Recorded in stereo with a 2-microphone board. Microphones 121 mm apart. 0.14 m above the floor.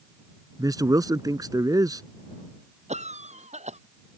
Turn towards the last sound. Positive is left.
turn(degrees=-65)  # may be behind; listen again after turning